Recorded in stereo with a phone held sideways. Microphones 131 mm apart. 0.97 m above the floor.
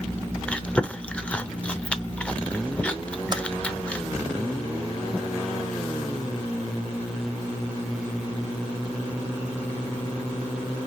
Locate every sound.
0.5 s chewing: 10° left (ahead or behind), 0.6 m
3.3 s typing on a keyboard: 30° right (ahead or behind), 0.7 m